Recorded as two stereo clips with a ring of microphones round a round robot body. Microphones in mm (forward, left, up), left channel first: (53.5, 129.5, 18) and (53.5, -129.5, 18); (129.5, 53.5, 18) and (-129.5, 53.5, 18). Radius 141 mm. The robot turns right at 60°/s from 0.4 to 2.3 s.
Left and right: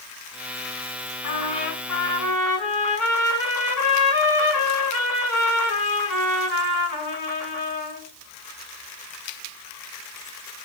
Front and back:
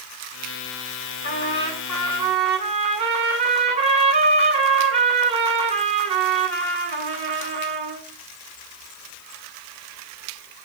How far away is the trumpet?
About 8.5 m.